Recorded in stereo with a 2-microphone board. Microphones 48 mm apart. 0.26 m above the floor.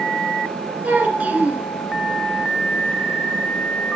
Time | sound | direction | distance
0.8 | a child speaking | 30° right (ahead or behind) | 2 m